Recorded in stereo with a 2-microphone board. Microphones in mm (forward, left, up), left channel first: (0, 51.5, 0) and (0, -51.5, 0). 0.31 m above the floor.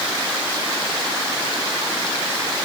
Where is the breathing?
No breathing in this recording.